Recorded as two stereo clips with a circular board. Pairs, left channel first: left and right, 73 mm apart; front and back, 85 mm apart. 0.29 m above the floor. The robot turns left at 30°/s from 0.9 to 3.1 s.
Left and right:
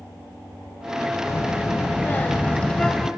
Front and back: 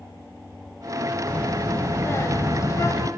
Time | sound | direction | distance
1.3 | a child speaking | 65° left | 0.6 m